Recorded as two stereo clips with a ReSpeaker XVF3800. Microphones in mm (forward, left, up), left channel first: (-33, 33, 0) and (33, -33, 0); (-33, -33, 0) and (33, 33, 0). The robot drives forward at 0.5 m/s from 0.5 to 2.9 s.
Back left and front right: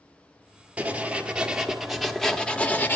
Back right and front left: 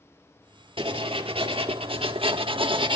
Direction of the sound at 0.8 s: 30° left.